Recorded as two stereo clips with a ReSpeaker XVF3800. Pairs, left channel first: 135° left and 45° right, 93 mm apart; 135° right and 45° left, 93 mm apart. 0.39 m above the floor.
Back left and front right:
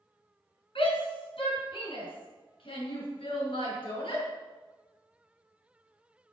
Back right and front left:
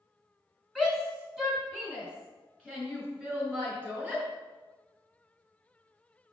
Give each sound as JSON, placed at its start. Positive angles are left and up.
{"t": 0.8, "sound": "a shout", "azimuth_deg": 125, "distance_m": 4.5}